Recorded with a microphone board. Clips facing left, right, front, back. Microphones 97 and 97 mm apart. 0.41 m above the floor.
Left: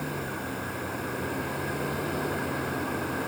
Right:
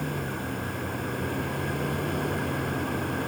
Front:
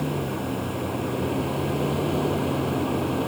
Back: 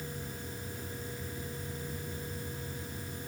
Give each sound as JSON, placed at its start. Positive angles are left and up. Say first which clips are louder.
{"t": 0.0, "sound": "a vehicle", "louder": "right 1 dB, front 15 dB", "azimuth_deg": 0}